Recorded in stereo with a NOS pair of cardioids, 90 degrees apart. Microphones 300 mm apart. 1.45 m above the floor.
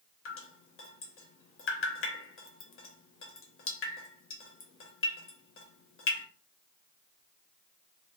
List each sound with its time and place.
0.2 s dripping: 45° left, 1.0 m